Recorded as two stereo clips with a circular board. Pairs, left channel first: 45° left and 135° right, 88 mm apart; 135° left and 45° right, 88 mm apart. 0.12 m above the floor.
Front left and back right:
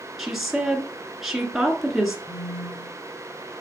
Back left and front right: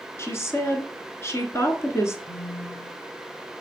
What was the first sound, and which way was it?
A woman speaking, 140° left.